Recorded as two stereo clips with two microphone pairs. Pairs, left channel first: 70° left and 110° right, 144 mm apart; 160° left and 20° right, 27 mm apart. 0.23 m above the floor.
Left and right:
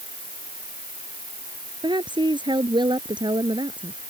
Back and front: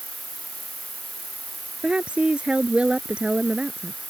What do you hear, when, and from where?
0.0 s an insect: 75° left
1.8 s a woman speaking: 60° right